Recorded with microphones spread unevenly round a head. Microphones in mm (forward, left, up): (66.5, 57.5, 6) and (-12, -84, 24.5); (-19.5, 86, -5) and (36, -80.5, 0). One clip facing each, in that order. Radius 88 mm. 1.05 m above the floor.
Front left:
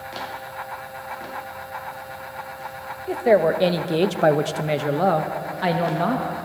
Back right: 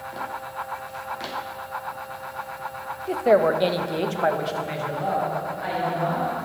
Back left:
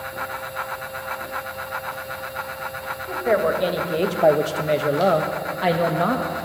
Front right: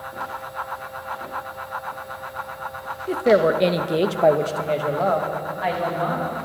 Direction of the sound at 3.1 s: 25° right.